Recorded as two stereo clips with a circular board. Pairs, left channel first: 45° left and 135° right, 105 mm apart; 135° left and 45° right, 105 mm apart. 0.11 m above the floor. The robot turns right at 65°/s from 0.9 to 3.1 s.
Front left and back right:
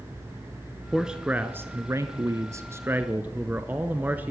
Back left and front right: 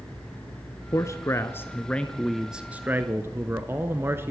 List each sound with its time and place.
0.9 s a man speaking: 140° left, 1.2 m; by 4.3 s 80° right, 1.2 m